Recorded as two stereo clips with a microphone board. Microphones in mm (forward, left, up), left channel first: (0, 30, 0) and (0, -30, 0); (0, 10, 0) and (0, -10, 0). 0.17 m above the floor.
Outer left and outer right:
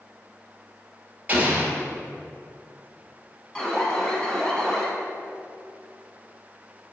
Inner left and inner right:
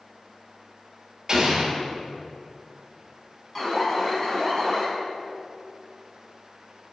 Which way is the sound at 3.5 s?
15° left (ahead or behind).